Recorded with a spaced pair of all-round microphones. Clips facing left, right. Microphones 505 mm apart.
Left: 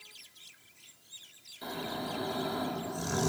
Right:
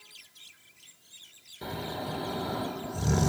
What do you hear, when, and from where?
1.6 s snoring: 75° right (ahead or behind), 2 m